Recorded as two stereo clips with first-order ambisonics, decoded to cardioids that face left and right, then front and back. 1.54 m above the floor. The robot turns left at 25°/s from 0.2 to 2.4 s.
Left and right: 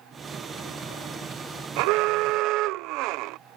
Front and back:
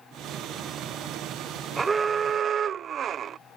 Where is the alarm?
105° right; by 3.4 s 120° right.